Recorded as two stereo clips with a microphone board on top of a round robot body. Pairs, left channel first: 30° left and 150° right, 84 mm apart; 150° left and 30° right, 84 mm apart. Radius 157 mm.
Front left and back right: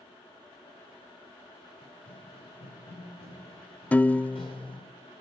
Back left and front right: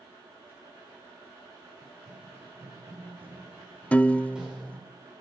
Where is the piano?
90° left, 0.5 m.